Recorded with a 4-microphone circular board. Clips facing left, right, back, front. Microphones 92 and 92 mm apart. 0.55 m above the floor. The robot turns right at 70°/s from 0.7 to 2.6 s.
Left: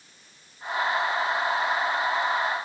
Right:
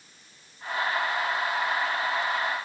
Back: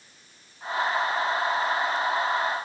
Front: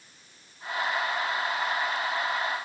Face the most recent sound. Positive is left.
No sound to turn to.